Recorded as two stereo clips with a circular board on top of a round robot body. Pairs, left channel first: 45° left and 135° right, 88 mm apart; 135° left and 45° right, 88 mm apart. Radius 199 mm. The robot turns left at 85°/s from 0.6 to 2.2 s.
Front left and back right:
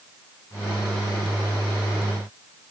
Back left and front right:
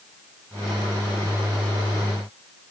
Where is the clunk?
No clunk in this recording.